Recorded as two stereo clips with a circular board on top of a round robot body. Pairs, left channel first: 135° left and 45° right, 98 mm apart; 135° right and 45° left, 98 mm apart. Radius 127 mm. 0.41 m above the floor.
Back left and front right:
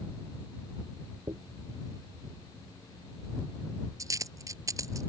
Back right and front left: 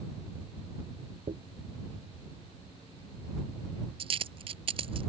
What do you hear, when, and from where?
1.3 s a dropped coin: 15° left